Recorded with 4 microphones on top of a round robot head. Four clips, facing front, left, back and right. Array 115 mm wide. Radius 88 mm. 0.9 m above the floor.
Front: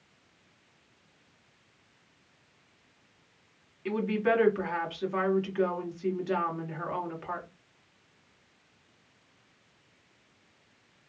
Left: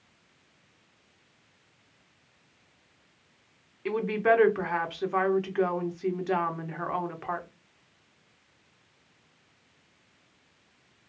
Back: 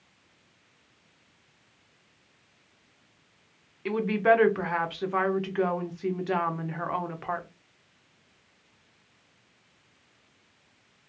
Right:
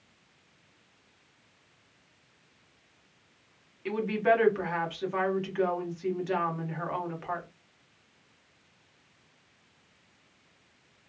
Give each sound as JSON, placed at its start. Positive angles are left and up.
{"t": 3.9, "sound": "a woman speaking", "azimuth_deg": 145, "distance_m": 1.0}